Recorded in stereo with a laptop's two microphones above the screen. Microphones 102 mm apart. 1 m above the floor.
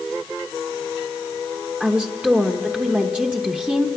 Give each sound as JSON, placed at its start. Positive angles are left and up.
{"t": 1.8, "sound": "a woman speaking", "side_deg": -10, "distance_m": 0.9}